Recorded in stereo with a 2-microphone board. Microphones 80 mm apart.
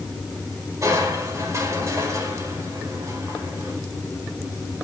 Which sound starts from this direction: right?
Crushing, at 0.8 s.